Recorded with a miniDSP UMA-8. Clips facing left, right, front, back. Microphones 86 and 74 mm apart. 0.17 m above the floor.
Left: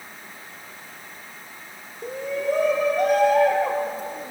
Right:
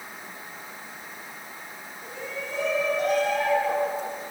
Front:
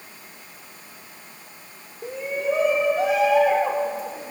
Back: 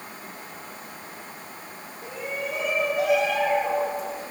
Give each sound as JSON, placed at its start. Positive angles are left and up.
{"t": 2.0, "sound": "a shout", "azimuth_deg": 55, "distance_m": 8.5}